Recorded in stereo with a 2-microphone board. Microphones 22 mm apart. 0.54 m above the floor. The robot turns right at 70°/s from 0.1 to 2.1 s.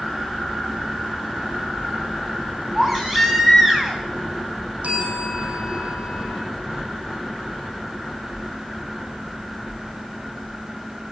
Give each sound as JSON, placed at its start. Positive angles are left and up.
{"t": 2.8, "sound": "a baby crying", "side_deg": -10, "distance_m": 4.5}
{"t": 4.8, "sound": "a bell", "side_deg": -65, "distance_m": 5.0}